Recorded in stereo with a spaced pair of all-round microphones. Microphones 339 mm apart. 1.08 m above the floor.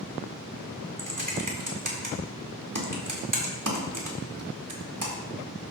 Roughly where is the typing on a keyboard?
Right.